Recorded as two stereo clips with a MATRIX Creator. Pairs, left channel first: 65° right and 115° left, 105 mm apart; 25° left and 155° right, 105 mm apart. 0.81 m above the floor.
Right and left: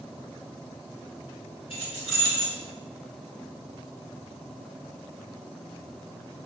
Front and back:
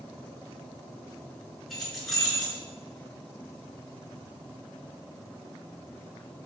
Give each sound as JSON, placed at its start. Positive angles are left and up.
{"t": 1.7, "sound": "keys jangling", "azimuth_deg": -70, "distance_m": 1.9}